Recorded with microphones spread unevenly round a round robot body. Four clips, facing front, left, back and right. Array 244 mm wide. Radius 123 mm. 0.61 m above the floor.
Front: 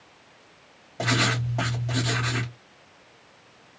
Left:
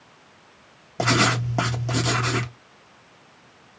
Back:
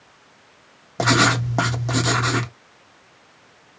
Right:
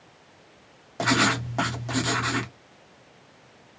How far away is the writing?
About 1.1 m.